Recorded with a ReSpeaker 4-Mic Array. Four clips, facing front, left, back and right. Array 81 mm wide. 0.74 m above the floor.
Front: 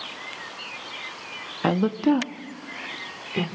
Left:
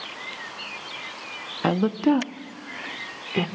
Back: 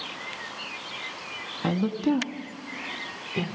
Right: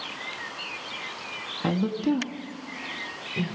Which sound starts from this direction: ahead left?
A woman speaking, at 1.6 s.